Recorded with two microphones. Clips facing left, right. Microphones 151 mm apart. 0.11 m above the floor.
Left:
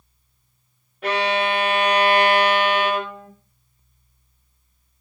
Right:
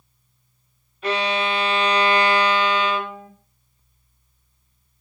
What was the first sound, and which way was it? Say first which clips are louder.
A violin: left 2 dB; 60° left (ahead or behind).